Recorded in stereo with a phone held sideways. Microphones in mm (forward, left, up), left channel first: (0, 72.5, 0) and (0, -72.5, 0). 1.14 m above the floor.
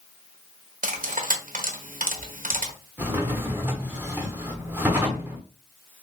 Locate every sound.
0.8 s cutlery clinking: 70° right (ahead or behind), 0.7 m
3.0 s a drawer: 15° right (ahead or behind), 0.8 m